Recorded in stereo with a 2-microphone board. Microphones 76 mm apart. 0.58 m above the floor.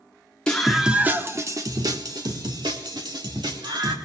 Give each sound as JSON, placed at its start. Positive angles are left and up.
{"t": 0.5, "sound": "a scream", "side_deg": 15, "distance_m": 1.0}